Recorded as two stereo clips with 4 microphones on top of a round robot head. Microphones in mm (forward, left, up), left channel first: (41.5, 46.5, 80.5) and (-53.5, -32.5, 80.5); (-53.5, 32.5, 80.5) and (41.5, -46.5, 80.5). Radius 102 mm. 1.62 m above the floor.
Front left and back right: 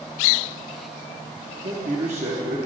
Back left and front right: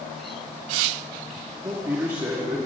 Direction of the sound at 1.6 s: 105° right.